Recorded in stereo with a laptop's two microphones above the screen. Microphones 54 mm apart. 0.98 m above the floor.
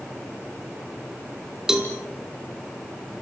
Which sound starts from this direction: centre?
A cowbell, at 1.7 s.